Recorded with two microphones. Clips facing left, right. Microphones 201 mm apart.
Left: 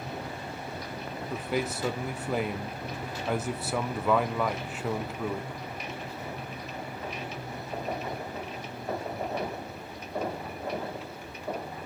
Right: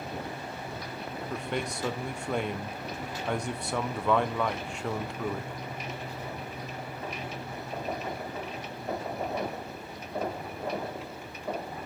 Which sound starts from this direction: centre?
A man speaking, at 1.3 s.